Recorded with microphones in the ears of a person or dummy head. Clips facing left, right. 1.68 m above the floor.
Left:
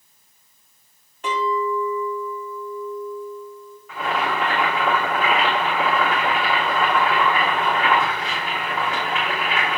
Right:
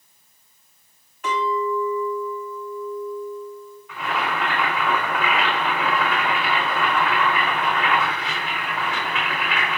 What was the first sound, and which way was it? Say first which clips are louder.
A clink: even; 30° left (ahead or behind).